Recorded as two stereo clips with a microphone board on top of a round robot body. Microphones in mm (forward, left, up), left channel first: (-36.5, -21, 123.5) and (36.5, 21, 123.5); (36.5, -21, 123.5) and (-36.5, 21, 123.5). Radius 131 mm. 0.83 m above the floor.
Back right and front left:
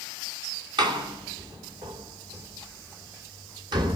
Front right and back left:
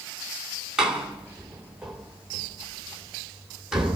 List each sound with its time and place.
0.8 s a door slam: 65° left, 3 m